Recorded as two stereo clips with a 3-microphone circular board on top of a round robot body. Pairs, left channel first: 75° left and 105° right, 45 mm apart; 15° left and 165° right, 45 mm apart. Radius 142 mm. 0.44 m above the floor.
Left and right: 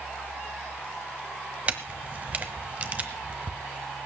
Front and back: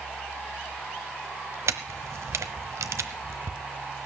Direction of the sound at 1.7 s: 165° right.